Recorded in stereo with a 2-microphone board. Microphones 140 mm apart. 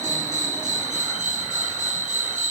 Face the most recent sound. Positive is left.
turn(degrees=-65)  # may be behind; listen again after turning